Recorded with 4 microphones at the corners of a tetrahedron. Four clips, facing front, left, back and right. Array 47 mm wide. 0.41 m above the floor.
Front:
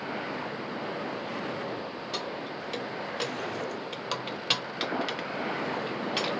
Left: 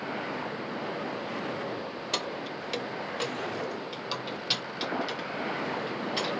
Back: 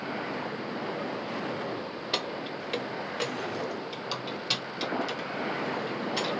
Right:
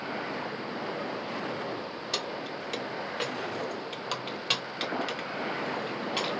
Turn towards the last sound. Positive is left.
turn(degrees=-30)